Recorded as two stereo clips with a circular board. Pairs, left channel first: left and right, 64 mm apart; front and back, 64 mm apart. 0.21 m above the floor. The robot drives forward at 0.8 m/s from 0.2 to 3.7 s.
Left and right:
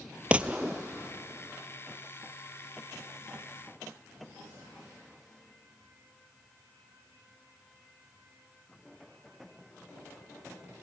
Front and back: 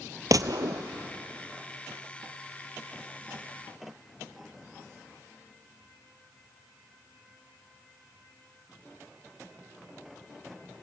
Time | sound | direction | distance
0.3 | a gunshot | 160° right | 0.8 m